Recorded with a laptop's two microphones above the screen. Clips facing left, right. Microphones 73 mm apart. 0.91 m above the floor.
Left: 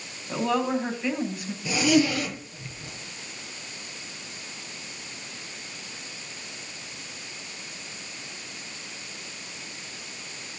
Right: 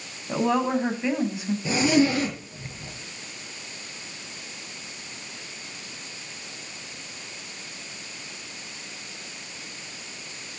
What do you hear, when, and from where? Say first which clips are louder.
0.3 s a woman speaking: right 2 dB; 20° right (ahead or behind), 8 m
1.6 s a zipper: right 1 dB; 30° right (ahead or behind), 6.5 m